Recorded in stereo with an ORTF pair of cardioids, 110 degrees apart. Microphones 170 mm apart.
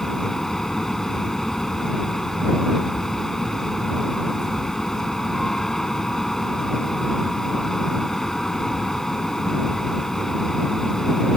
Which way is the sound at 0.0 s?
Straight ahead.